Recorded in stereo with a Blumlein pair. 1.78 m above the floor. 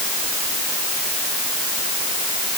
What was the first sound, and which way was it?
Only background noise.